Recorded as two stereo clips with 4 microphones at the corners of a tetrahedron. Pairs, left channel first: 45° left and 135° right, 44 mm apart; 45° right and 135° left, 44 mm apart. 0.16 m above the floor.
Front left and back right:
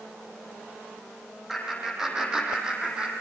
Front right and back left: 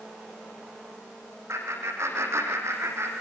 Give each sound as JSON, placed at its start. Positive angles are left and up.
{"t": 1.5, "sound": "laughter", "azimuth_deg": 145, "distance_m": 8.0}